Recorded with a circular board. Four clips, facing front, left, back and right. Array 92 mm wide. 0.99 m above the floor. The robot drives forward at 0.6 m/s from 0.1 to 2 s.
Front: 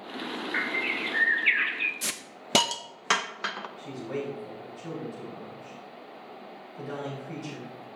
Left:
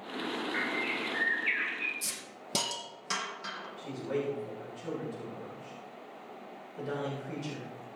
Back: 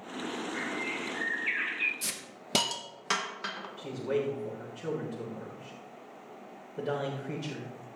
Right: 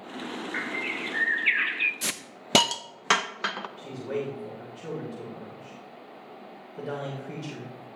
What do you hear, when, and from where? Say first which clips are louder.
0.5 s a bird: right 1 dB, front 4 dB; 15° right, 1.0 m; by 1.9 s 90° right, 0.5 m
2.0 s a hiss: right 7 dB, front 4 dB; 70° right, 0.6 m
3.8 s a man speaking: even, back 5 dB; 160° right, 3.5 m